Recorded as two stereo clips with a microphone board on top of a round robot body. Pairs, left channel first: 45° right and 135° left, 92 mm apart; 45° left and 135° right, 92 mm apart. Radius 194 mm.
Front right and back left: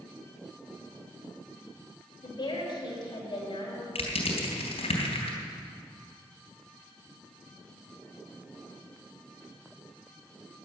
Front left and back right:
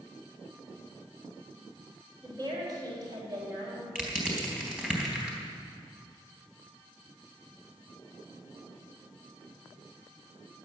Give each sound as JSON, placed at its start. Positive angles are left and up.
{"t": 2.2, "sound": "a woman speaking", "azimuth_deg": -85, "distance_m": 3.5}
{"t": 4.0, "sound": "crushing", "azimuth_deg": -55, "distance_m": 3.0}